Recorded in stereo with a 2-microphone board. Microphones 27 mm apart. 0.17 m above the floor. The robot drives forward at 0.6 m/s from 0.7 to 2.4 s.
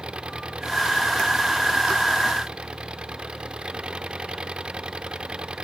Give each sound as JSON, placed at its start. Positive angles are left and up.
{"t": 0.0, "sound": "an engine running", "side_deg": -40}